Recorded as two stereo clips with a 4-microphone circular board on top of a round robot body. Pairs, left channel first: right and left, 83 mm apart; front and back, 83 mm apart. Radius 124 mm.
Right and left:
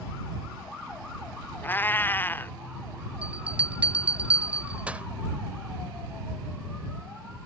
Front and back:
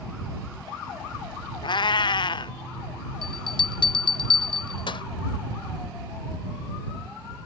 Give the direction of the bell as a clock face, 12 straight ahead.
11 o'clock.